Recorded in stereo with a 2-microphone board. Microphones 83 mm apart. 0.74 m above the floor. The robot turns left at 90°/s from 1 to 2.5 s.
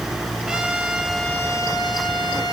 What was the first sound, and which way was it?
A trumpet, 170° right.